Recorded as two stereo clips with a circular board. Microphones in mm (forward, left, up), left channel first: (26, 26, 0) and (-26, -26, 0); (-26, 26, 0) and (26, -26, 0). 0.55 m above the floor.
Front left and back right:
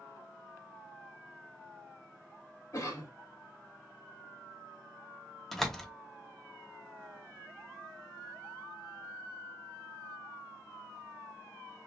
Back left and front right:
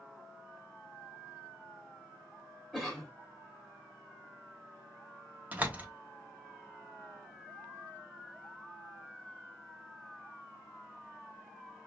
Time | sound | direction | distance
2.7 | a cough | 50° left | 1.3 m
5.5 | a door slam | 40° right | 0.7 m